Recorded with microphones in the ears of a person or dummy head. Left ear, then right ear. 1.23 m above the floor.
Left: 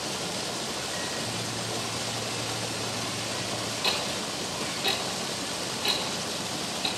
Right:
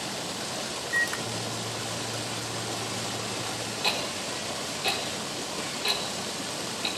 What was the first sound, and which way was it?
A microwave, 65° right (ahead or behind).